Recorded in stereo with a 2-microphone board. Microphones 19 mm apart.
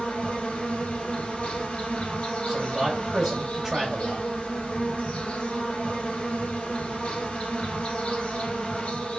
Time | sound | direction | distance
0.0 | an insect | 85° left | 1.5 m
2.5 | a man speaking | 10° right (ahead or behind) | 1.1 m